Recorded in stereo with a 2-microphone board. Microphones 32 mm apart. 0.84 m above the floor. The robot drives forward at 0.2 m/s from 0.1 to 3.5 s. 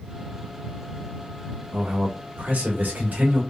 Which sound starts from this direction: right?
A man speaking, at 1.7 s.